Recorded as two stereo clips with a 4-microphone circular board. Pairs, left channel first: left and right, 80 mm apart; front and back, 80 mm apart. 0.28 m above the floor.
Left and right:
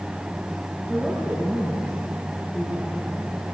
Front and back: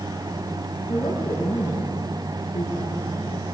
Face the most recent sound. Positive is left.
turn(degrees=10)